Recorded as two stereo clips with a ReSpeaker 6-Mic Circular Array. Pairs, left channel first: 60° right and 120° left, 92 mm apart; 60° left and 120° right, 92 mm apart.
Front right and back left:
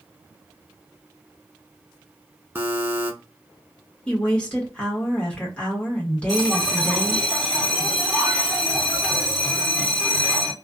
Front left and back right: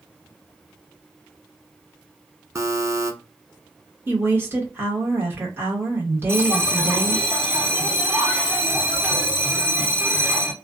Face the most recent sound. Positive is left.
turn(degrees=-140)